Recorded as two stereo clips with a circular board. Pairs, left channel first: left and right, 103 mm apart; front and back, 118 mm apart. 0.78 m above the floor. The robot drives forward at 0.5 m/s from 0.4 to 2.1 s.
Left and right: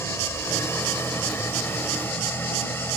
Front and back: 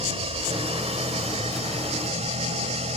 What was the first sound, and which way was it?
An engine running, 150° left.